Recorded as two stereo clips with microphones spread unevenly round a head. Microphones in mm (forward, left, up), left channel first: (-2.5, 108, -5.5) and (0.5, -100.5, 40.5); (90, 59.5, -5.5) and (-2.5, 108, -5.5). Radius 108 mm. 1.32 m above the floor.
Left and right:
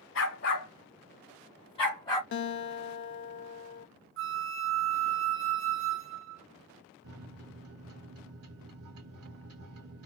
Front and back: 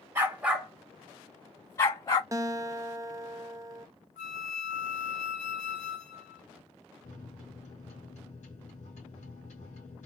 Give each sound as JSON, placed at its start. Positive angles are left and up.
{"t": 0.1, "sound": "a dog barking", "azimuth_deg": 95, "distance_m": 1.3}
{"t": 2.3, "sound": "a guitar", "azimuth_deg": 95, "distance_m": 0.5}
{"t": 4.2, "sound": "a flute", "azimuth_deg": -55, "distance_m": 0.7}
{"t": 7.0, "sound": "a microwave", "azimuth_deg": -70, "distance_m": 1.5}